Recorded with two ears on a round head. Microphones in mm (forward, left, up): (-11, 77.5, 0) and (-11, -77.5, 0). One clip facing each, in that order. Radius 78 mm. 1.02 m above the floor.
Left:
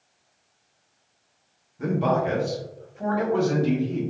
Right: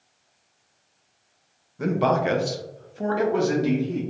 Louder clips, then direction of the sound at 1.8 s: Right 1 dB; 55° right (ahead or behind).